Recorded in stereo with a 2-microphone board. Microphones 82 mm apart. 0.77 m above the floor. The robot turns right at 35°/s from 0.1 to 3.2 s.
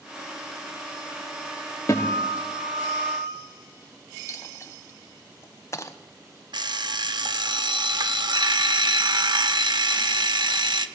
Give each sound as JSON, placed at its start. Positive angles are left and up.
{"t": 1.9, "sound": "a guitar", "azimuth_deg": 145, "distance_m": 4.0}
{"t": 4.3, "sound": "a dropped coin", "side_deg": 35, "distance_m": 1.1}
{"t": 6.5, "sound": "an alarm clock", "side_deg": -65, "distance_m": 1.1}